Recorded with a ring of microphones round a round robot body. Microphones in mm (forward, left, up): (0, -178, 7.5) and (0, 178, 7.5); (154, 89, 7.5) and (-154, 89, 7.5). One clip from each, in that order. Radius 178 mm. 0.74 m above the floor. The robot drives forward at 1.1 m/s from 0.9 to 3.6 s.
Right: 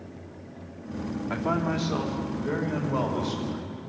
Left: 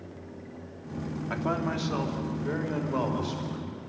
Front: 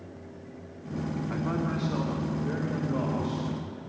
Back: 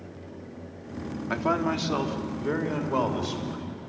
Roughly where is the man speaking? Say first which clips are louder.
Right 2 dB, back 8 dB; behind.